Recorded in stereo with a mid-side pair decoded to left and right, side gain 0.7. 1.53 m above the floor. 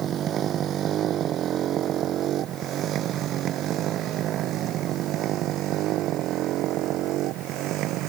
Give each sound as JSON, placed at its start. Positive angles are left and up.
{"t": 0.0, "sound": "a motorcycle", "azimuth_deg": -40}